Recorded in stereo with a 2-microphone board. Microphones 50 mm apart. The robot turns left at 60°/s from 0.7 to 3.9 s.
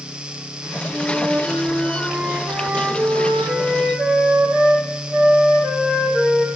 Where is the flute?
30° left, 5.5 m; by 6.5 s 150° right, 5.5 m.